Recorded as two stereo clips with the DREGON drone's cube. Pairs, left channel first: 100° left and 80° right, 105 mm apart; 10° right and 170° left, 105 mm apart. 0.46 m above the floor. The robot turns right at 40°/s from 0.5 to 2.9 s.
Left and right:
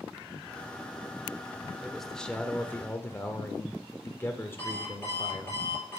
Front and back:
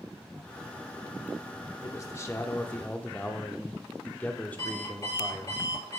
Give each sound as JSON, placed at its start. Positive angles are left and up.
{"t": 1.8, "sound": "a man speaking", "azimuth_deg": 10, "distance_m": 1.0}
{"t": 4.6, "sound": "an alarm clock", "azimuth_deg": 35, "distance_m": 5.5}